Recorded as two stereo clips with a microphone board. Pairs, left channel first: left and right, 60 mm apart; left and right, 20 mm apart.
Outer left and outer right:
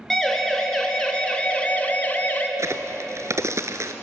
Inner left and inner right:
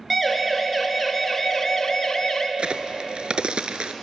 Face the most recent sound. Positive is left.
turn(degrees=-60)  # may be behind; listen again after turning